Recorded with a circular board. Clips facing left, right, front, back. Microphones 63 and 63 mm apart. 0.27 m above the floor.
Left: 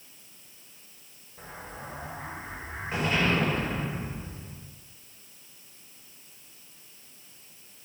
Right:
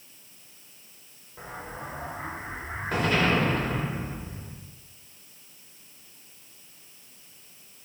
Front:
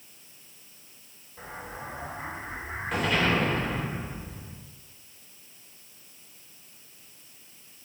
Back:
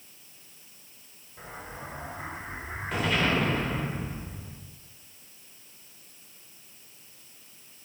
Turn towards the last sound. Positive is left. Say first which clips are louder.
# right 4 dB, front 2 dB
turn(degrees=-90)